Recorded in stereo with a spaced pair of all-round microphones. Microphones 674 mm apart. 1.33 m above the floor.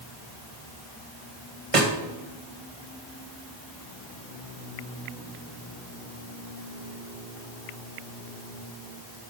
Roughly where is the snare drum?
Right.